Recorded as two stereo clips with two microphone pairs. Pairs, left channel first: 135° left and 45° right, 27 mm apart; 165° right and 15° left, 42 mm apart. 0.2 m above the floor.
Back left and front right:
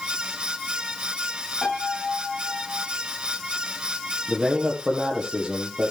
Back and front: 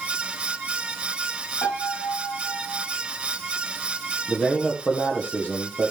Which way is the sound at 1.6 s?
135° right.